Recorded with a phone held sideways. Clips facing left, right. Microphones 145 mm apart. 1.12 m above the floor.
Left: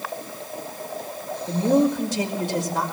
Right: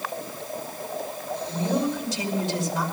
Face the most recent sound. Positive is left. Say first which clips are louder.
# left 7 dB
turn(degrees=50)  # may be behind; listen again after turning